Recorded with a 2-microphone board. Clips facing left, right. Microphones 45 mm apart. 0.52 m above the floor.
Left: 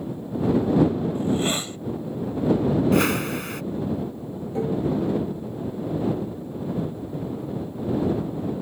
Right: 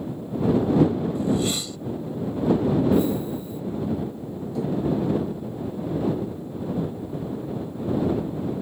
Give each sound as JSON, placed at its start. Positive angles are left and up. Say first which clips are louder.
{"t": 1.1, "sound": "a hiss", "louder": "even", "side_deg": 40}
{"t": 2.9, "sound": "a whoosh", "louder": "left 1 dB", "side_deg": 75}
{"t": 4.5, "sound": "dishes clattering", "louder": "left 1 dB", "side_deg": 35}